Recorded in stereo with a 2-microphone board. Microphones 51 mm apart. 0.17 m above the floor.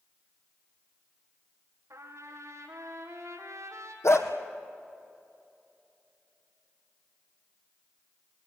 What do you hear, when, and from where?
1.9 s a trumpet: 75° right (ahead or behind), 4 m
4.0 s a dog barking: 65° left (ahead or behind), 2.5 m